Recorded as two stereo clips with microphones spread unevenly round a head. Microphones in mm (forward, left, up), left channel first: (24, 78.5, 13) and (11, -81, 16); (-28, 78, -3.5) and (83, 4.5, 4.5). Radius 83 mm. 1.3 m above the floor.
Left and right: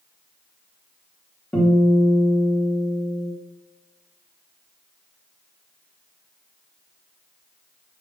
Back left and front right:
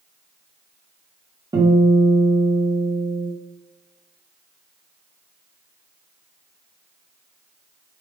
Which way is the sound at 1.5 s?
5° left.